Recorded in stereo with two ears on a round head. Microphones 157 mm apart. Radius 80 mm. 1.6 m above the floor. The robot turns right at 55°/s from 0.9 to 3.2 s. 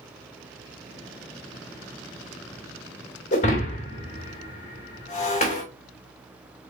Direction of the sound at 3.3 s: 40° left (ahead or behind).